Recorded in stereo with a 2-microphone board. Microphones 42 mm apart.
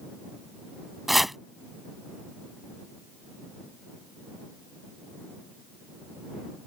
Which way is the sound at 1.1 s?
Centre (ahead or behind).